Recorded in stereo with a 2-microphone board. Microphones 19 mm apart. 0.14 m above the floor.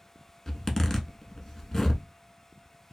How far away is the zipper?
About 0.6 m.